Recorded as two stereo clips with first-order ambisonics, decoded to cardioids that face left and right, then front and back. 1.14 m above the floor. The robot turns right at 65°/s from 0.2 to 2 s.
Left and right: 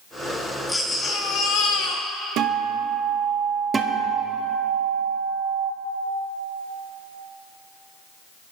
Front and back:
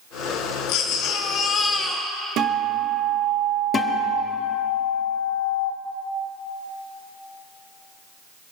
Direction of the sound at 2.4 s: 130° right.